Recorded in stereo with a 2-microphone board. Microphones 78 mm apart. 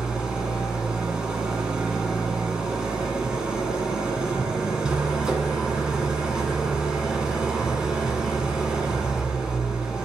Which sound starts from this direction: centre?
An engine running, at 0.0 s.